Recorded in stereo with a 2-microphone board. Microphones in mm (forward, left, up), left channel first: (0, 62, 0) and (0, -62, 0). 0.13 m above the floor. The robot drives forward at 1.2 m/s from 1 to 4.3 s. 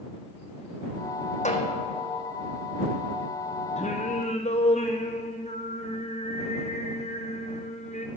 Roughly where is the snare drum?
Left.